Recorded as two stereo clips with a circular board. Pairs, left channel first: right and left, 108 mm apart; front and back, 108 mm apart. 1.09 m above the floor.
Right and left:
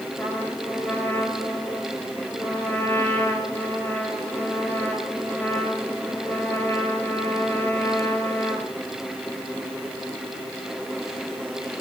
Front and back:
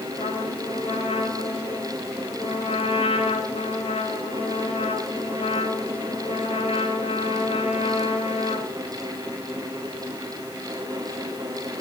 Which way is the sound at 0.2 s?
20° right.